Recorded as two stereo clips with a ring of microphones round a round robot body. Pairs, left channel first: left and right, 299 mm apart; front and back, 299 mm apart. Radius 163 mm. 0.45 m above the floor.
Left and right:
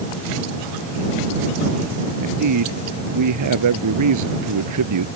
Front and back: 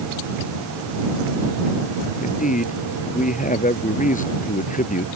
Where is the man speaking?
65° right.